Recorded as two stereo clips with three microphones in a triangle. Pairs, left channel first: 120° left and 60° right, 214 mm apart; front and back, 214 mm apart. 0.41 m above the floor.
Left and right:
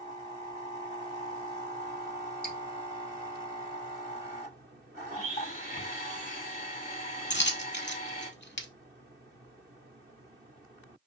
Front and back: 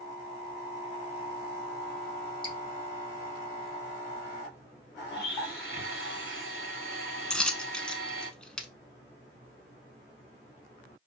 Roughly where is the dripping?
Ahead left.